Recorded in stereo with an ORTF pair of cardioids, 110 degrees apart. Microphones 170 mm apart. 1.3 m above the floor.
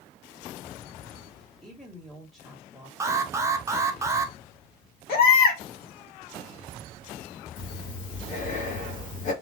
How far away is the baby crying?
About 2 m.